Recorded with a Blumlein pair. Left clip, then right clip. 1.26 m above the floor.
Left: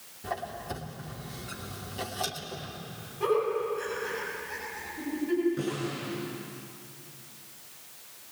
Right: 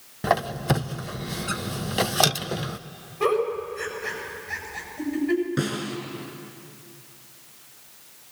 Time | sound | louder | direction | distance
0.2 | a squeak | right 12 dB | 50° right | 0.6 m
3.2 | a giggle | right 3 dB | 70° right | 8 m
5.6 | a snare drum | right 4 dB | 60° right | 6 m